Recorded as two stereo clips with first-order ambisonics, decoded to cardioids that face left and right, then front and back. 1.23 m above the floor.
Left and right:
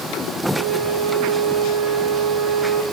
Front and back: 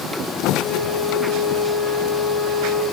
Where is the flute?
75° right, 5 m.